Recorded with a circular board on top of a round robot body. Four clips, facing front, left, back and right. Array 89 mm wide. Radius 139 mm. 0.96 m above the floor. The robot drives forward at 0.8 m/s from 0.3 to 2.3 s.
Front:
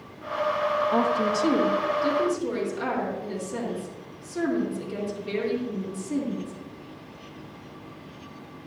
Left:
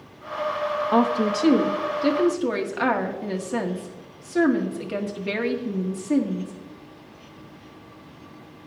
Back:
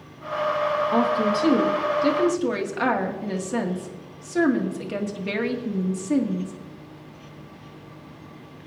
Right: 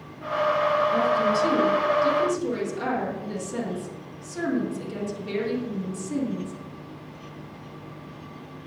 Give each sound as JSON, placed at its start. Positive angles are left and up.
{"t": 0.9, "sound": "a woman speaking", "azimuth_deg": 95, "distance_m": 1.4}